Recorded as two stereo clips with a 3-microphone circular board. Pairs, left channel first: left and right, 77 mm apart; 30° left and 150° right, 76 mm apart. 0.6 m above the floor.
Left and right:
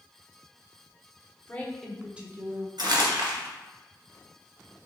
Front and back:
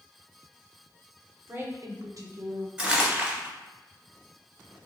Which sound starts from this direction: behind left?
A woman speaking, at 1.5 s.